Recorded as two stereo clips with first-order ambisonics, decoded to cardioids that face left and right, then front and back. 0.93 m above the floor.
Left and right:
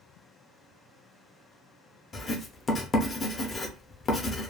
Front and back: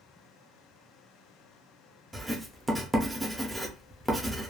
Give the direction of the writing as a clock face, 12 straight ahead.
8 o'clock.